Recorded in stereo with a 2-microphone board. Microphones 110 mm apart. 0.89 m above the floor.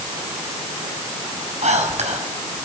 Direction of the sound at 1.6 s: 80° right.